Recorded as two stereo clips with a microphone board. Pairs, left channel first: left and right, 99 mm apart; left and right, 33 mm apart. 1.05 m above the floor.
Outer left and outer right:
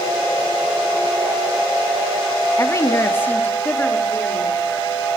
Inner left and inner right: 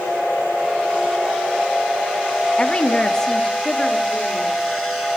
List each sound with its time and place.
2.6 s a woman speaking: 35° left (ahead or behind), 1.5 m; by 4.6 s 10° left (ahead or behind), 3.5 m